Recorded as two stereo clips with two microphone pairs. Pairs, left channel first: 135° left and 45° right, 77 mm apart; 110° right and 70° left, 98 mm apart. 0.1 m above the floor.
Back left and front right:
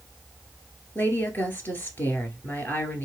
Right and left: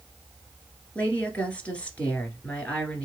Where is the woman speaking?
Straight behind, 1.6 m.